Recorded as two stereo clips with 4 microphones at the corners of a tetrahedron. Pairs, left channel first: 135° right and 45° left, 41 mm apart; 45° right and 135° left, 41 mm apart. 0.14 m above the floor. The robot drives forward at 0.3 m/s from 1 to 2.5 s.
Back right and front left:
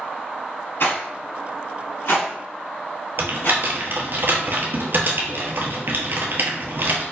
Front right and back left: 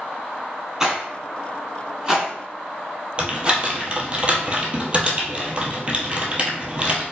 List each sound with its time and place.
0.8 s a rattle: 150° right, 1.4 m; by 3.6 s 155° right, 1.8 m
3.2 s typing on a keyboard: 75° left, 0.8 m